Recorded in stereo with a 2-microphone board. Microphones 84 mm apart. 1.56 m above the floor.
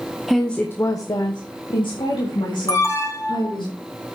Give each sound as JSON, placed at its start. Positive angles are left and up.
{"t": 0.3, "sound": "a woman speaking", "side_deg": 0, "distance_m": 1.1}
{"t": 2.7, "sound": "an alarm", "side_deg": 35, "distance_m": 2.0}